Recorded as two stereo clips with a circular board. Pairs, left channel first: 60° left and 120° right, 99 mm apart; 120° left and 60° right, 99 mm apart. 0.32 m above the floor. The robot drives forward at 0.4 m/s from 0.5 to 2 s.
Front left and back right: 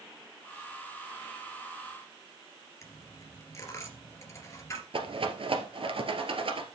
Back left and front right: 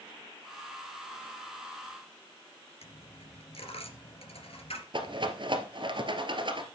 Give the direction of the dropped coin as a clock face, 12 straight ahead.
8 o'clock.